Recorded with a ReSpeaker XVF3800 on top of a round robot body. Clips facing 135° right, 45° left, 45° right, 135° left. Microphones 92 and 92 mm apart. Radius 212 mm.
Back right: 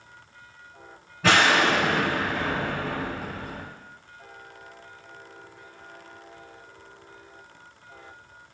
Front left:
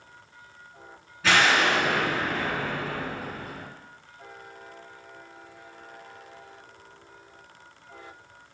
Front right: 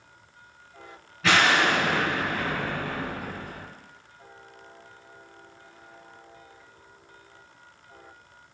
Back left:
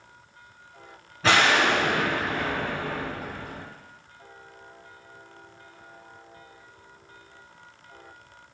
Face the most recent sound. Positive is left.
turn(degrees=-170)